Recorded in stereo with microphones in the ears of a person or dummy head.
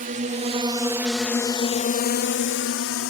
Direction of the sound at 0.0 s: 45° right (ahead or behind).